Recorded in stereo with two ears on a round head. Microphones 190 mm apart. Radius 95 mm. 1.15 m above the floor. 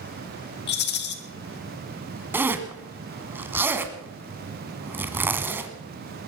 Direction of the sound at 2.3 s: 10° right (ahead or behind).